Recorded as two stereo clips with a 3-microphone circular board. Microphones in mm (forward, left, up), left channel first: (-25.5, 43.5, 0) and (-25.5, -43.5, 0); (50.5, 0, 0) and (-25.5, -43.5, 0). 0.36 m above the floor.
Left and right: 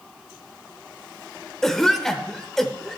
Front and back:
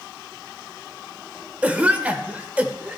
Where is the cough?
165° left, 1.0 m.